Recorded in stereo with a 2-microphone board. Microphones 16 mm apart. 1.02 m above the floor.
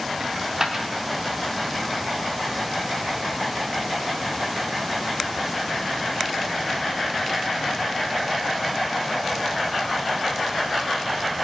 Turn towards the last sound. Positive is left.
turn(degrees=-25)  # may be behind; listen again after turning